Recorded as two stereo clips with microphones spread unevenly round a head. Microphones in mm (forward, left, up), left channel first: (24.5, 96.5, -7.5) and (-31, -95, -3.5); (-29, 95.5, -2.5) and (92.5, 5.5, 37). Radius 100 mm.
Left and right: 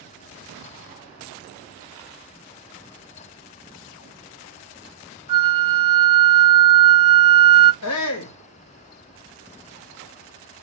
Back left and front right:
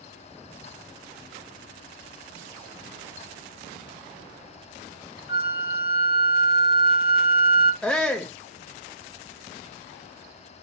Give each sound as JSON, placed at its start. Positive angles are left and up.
{"t": 5.3, "sound": "a flute", "azimuth_deg": -170, "distance_m": 0.6}
{"t": 7.8, "sound": "a shout", "azimuth_deg": 60, "distance_m": 0.7}